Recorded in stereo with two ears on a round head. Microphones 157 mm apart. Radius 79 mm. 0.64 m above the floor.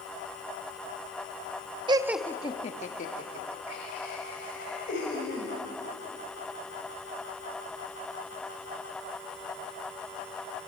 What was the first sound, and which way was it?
Laughter, 25° right (ahead or behind).